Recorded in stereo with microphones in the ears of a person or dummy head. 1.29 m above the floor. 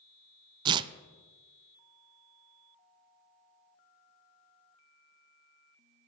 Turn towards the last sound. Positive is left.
turn(degrees=-25)  # may be behind; listen again after turning